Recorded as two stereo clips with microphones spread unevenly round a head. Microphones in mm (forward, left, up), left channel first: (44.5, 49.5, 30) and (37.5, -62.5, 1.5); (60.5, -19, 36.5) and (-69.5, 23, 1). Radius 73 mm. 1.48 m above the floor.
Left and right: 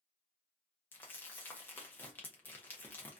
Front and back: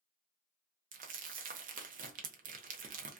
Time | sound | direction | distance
0.9 | crumpling | 135° left | 0.5 m